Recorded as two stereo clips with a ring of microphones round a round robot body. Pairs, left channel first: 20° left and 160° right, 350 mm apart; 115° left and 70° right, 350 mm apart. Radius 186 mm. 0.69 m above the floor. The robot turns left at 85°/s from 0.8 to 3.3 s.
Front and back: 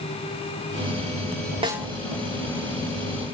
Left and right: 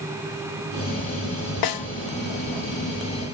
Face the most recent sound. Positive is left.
turn(degrees=-15)